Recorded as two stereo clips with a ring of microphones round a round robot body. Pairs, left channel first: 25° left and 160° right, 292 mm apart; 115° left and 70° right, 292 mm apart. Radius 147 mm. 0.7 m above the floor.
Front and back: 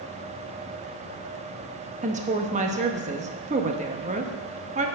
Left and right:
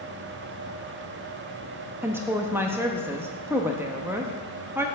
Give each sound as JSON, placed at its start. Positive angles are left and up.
{"t": 2.0, "sound": "a woman speaking", "azimuth_deg": -140, "distance_m": 0.9}